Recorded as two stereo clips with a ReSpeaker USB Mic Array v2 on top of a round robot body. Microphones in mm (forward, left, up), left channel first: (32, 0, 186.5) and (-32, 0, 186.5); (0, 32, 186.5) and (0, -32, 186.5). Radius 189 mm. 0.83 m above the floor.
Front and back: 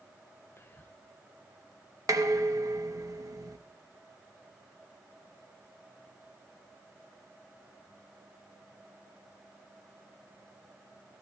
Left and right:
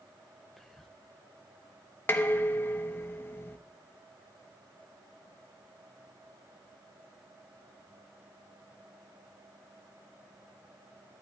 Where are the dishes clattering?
145° left, 0.8 m.